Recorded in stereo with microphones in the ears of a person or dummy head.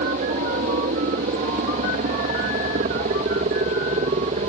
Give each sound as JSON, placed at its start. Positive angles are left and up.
{"t": 0.0, "sound": "a helicopter", "side_deg": -40}